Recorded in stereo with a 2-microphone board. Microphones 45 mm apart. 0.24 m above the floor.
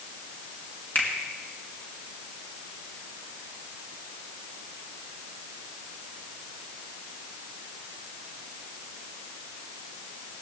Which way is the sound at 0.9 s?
40° left (ahead or behind).